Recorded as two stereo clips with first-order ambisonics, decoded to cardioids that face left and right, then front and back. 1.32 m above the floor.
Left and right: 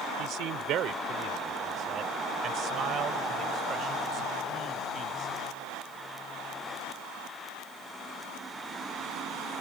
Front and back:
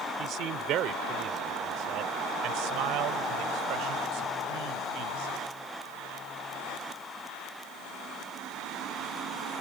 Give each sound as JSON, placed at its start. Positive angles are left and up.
{"t": 0.2, "sound": "a man speaking", "azimuth_deg": -130}